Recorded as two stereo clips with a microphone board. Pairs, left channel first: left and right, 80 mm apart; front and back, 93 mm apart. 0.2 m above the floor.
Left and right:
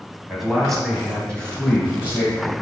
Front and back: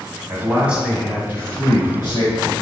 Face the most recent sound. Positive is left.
turn(degrees=30)